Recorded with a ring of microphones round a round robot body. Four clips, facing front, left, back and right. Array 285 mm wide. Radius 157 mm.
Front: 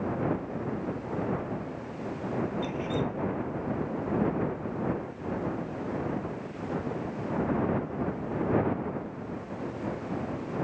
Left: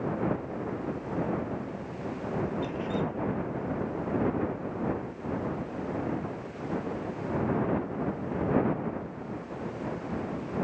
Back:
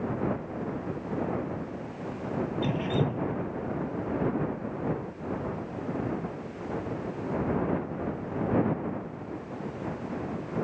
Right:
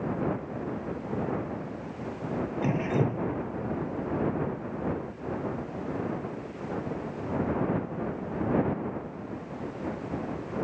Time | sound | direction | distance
2.6 | dripping | 120° right | ?